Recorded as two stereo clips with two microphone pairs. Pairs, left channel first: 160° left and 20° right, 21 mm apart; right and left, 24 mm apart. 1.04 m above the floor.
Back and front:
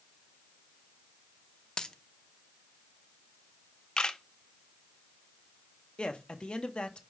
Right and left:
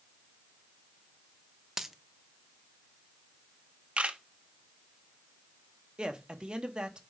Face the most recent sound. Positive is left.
turn(degrees=135)